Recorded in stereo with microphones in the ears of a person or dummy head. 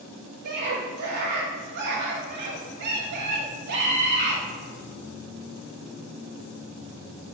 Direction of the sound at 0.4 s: 60° right (ahead or behind).